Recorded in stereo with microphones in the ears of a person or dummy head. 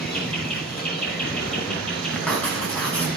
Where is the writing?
10° left (ahead or behind), 4.5 m.